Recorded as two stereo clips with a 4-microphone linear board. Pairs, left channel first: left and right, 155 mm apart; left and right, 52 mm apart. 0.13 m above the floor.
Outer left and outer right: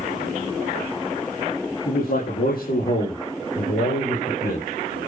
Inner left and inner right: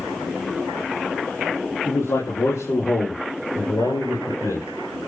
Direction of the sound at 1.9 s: 80° left.